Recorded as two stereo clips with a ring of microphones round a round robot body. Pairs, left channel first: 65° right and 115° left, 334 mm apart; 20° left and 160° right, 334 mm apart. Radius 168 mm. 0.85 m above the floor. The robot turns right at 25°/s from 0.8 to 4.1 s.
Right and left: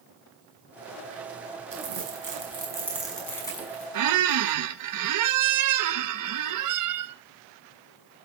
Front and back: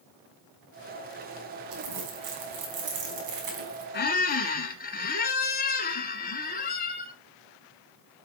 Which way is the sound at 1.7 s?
170° left.